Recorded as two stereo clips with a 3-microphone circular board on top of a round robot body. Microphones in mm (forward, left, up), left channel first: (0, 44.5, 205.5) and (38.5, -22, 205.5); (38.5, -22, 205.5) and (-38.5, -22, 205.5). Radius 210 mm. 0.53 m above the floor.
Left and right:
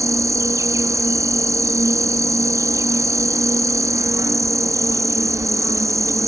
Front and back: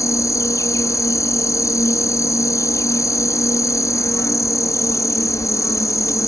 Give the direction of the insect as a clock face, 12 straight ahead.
1 o'clock.